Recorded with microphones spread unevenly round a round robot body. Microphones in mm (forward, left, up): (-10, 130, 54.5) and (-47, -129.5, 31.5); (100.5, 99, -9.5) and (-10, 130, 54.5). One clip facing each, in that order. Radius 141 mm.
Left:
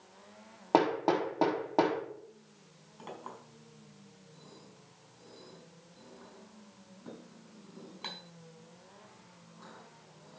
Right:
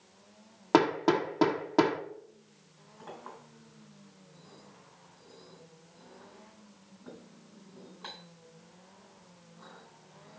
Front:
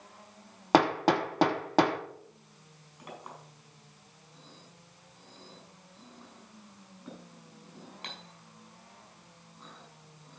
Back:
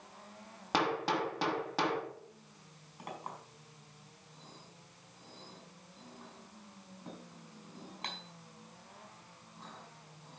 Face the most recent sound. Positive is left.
turn(degrees=130)